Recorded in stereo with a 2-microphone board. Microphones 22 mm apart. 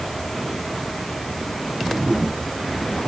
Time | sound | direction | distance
1.7 | a whoosh | 35° right (ahead or behind) | ?